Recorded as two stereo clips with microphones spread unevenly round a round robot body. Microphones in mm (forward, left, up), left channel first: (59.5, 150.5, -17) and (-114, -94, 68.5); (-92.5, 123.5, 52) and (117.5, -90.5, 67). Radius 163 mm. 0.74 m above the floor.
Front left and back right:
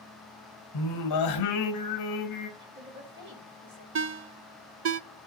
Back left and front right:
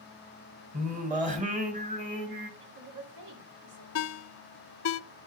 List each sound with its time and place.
0.7 s singing: 20° left, 2 m
2.6 s a woman speaking: 65° right, 3.5 m
4.0 s a ringtone: straight behind, 0.5 m